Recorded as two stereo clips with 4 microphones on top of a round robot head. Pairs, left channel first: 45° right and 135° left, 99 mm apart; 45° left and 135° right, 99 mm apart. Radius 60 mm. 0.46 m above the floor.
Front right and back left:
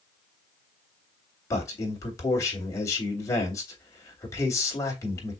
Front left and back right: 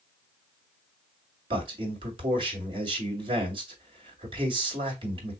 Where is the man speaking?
105° right, 2.5 m.